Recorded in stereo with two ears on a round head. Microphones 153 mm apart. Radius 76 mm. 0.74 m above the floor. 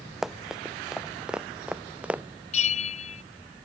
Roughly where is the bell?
Left.